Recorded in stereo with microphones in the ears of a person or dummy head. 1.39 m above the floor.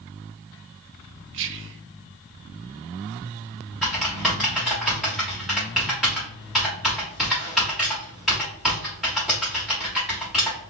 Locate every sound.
1.3 s whispering: 60° right (ahead or behind), 0.5 m
3.8 s typing on a keyboard: centre (ahead or behind), 1.1 m